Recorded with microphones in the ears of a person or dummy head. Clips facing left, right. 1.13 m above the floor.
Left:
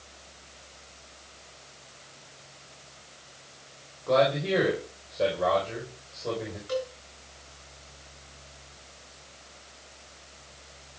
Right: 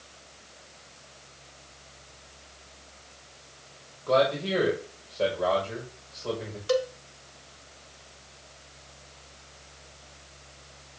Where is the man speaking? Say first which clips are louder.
Left 1 dB; centre (ahead or behind), 5 m.